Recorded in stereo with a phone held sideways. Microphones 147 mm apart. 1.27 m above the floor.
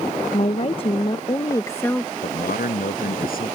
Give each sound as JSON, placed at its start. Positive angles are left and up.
{"t": 0.3, "sound": "a woman speaking", "side_deg": 50}
{"t": 2.2, "sound": "a man speaking", "side_deg": 80}